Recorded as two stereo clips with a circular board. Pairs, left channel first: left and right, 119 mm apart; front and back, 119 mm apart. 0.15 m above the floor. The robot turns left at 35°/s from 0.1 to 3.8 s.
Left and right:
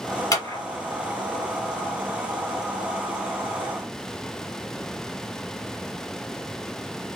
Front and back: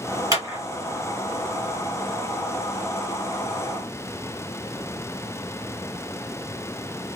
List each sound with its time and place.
0.3 s a clap: 135° left, 1.7 m; by 0.6 s 125° left, 1.7 m